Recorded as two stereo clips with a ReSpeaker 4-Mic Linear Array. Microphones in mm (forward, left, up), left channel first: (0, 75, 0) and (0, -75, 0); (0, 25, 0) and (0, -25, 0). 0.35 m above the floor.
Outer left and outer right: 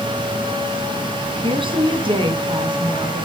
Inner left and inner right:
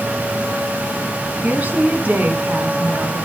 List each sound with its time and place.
1.4 s a woman speaking: 35° right (ahead or behind), 4 m; by 3.2 s 30° right (ahead or behind), 5 m